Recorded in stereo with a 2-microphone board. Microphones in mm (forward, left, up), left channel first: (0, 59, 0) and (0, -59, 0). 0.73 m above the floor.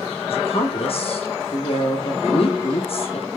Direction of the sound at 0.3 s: 55° left (ahead or behind).